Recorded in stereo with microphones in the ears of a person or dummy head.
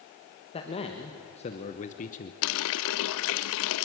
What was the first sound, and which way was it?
A man speaking, 30° left (ahead or behind).